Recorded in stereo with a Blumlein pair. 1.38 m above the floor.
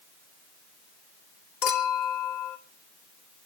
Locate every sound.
1.6 s a clink: 50° left, 3 m